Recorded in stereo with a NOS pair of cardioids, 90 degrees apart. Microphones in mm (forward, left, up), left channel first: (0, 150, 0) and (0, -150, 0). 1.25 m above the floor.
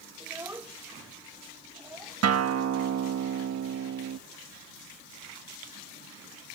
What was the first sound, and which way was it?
A child speaking, 10° right.